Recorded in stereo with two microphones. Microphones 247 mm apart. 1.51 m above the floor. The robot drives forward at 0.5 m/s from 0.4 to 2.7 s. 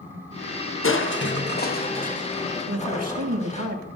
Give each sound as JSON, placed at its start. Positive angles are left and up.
{"t": 0.8, "sound": "crushing", "side_deg": 55, "distance_m": 0.8}
{"t": 2.7, "sound": "a man speaking", "side_deg": -80, "distance_m": 1.9}